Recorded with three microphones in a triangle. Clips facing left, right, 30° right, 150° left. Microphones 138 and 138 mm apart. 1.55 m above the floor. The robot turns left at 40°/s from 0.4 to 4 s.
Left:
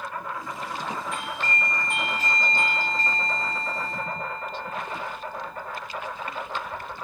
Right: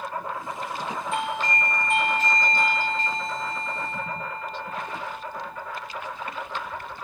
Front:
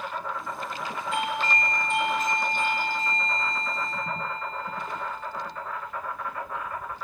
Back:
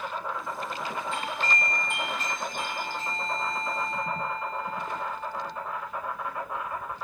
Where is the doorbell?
145° right, 0.8 m; by 5.9 s 95° left, 0.8 m.